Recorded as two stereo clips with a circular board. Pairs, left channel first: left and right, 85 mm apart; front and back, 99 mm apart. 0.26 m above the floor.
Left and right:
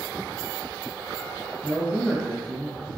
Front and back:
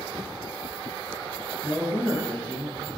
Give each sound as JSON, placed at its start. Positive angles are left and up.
{"t": 1.6, "sound": "a man speaking", "azimuth_deg": 120, "distance_m": 1.0}